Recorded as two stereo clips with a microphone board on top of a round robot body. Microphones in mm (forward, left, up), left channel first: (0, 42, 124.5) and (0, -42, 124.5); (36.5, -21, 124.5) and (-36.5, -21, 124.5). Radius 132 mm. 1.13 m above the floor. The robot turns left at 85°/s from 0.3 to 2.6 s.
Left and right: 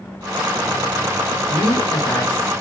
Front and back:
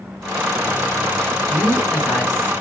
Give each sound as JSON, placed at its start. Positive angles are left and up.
{"t": 1.5, "sound": "a woman speaking", "azimuth_deg": 125, "distance_m": 1.2}